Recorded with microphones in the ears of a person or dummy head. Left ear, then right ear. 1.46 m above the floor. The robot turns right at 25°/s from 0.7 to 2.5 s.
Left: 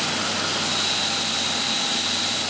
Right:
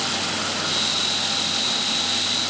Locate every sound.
Only background noise.